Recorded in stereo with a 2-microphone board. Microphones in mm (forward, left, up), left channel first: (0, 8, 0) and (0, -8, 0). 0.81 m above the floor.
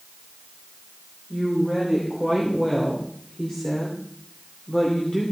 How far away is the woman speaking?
About 3.5 m.